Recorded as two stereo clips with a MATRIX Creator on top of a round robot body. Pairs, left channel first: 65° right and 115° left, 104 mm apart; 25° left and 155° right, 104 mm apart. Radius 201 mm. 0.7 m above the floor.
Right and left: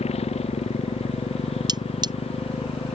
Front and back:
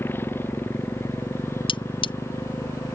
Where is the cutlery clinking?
65° left.